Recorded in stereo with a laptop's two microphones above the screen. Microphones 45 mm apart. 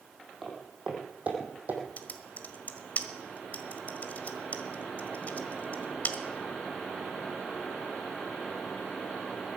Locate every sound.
0.4 s footsteps: 10° right (ahead or behind), 3 m; by 1.8 s 40° right (ahead or behind), 3 m
2.0 s typing on a keyboard: 40° left (ahead or behind), 1.5 m